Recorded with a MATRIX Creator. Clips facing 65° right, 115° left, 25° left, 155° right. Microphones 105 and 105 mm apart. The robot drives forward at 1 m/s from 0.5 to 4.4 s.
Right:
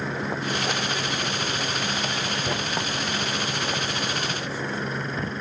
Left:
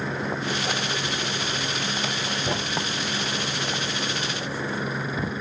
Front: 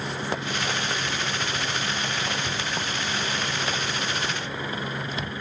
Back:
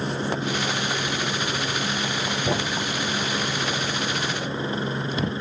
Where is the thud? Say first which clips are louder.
Even, back 5 dB; 165° right; by 5.3 s 170° right.